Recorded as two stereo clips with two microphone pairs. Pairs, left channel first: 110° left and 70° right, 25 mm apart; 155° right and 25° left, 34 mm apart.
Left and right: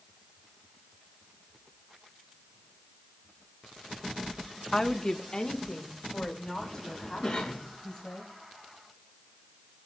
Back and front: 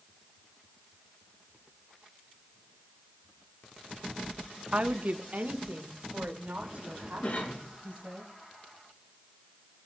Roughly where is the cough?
Behind.